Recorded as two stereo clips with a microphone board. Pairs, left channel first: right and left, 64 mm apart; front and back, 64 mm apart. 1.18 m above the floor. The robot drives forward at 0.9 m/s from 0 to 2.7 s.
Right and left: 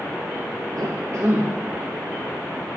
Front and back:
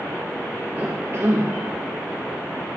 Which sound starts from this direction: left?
A cough, at 0.8 s.